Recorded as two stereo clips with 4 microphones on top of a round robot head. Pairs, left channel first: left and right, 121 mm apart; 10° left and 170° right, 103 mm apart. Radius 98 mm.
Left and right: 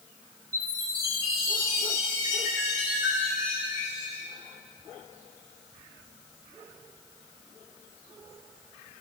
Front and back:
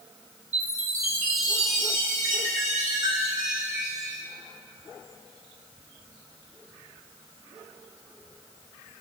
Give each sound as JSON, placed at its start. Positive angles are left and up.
{"t": 0.5, "sound": "a chime", "azimuth_deg": -160, "distance_m": 4.5}